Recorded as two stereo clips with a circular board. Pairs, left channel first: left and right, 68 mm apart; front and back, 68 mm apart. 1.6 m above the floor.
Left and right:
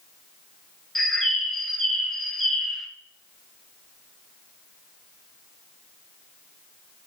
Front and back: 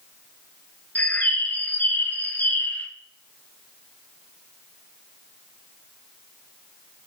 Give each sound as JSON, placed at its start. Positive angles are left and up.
{"t": 0.9, "sound": "a bird", "azimuth_deg": 10, "distance_m": 0.9}